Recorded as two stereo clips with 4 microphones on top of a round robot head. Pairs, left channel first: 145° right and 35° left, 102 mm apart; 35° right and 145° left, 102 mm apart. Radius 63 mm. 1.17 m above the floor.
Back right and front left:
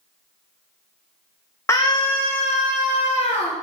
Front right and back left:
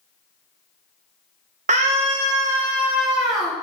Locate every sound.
1.7 s a scream: 145° left, 0.8 m; by 3.5 s 125° right, 2.5 m